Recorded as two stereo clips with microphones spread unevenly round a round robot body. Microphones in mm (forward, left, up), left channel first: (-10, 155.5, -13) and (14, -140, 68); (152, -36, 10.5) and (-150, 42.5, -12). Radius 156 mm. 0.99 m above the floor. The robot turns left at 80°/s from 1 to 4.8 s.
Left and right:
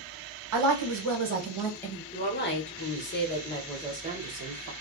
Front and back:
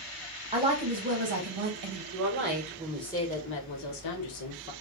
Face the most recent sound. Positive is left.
turn(degrees=-70)